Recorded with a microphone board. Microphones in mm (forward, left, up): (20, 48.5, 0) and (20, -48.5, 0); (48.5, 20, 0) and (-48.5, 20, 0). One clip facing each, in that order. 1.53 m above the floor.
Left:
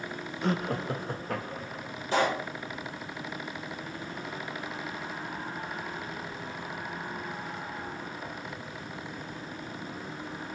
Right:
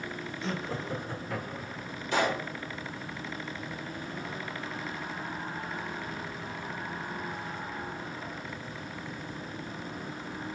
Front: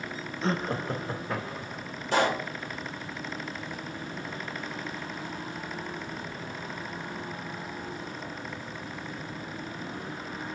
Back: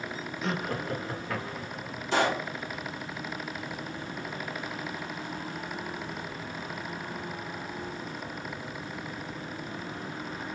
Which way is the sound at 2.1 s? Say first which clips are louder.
Left 2 dB, front 1 dB; 35° left.